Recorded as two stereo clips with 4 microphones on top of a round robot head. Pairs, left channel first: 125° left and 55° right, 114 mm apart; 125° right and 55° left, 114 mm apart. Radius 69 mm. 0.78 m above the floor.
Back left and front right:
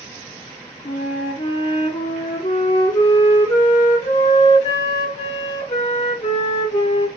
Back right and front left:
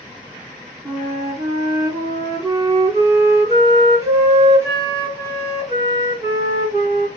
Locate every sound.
0.8 s a flute: 110° left, 1.8 m